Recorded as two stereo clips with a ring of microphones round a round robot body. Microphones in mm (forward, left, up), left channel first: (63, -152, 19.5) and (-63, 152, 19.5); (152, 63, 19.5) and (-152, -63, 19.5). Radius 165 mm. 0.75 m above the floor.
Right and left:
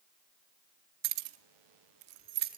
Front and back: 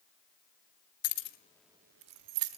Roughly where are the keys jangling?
Left.